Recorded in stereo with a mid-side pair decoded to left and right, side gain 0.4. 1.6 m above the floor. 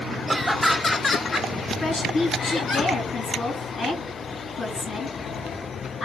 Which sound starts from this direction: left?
A woman speaking, at 1.8 s.